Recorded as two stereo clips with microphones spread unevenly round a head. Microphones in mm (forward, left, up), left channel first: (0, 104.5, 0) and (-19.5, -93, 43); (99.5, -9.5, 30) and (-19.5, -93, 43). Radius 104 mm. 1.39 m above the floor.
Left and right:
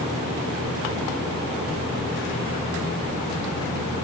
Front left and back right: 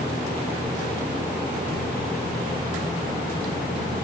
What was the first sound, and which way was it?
Only background noise.